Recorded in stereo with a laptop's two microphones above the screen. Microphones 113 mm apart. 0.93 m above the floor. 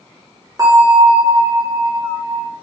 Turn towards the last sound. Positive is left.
turn(degrees=-30)  # may be behind; listen again after turning